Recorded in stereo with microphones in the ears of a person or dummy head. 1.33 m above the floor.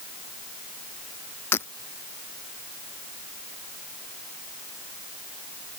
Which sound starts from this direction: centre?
Breaking glass, at 1.5 s.